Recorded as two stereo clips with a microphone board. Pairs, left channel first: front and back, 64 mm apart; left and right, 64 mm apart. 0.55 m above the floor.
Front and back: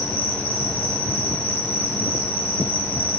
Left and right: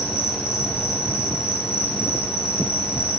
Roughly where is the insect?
Ahead left.